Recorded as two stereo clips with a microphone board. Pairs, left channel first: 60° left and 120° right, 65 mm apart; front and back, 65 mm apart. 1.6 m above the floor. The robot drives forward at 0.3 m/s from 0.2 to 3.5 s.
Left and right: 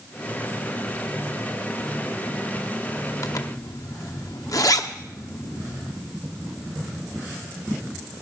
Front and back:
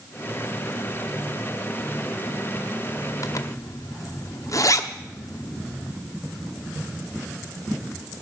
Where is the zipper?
30° left, 0.9 m; by 6.0 s 35° left, 0.8 m.